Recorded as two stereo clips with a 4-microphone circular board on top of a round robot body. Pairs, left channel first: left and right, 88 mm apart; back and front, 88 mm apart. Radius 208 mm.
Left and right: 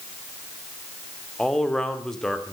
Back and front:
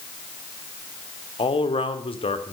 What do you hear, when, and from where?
1.4 s a man speaking: 175° left, 2.5 m